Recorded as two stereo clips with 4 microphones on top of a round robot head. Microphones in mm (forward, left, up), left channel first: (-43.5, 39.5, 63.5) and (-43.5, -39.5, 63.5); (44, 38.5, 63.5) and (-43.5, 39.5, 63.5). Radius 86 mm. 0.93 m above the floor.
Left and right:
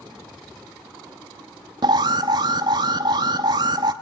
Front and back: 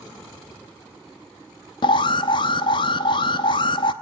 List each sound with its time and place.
1.8 s an alarm: 45° right, 0.8 m